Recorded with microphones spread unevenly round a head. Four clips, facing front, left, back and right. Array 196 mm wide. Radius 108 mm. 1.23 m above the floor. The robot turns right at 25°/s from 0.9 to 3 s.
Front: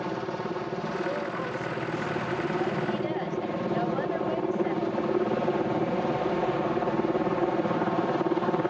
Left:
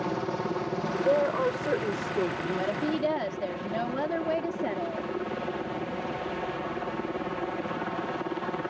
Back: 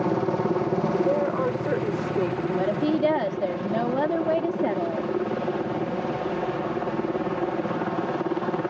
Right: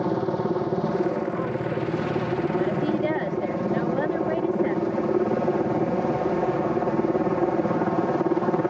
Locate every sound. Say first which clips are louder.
0.0 s a helicopter: right 6 dB, back 8 dB; 140° right; by 8.7 s 90° right
1.0 s a woman speaking: left 1 dB, back 8 dB; 125° left; by 2.9 s 175° left
2.6 s a woman speaking: right 2 dB, back 6 dB; 175° left; by 5.1 s 170° right